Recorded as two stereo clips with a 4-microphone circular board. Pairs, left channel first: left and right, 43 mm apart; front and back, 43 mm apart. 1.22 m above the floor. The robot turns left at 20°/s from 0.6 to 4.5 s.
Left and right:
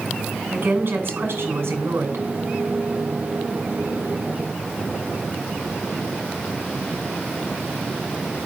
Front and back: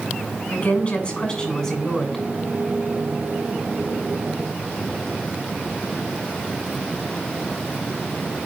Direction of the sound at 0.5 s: 55° right.